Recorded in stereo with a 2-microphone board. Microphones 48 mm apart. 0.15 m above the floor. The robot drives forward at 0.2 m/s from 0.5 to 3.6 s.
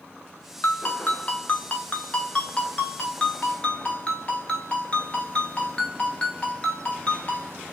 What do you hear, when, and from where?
0.6 s a ringtone: 40° left (ahead or behind), 0.7 m; by 7.5 s 25° left (ahead or behind), 1.1 m